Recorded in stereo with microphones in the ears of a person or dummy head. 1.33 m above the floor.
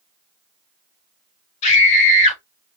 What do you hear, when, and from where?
1.6 s a scream: 45° left (ahead or behind), 3 m